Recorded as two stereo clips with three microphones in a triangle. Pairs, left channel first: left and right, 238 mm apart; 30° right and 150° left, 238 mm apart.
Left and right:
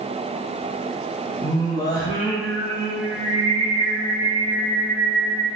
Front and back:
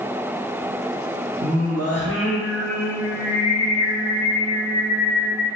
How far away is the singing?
About 0.9 m.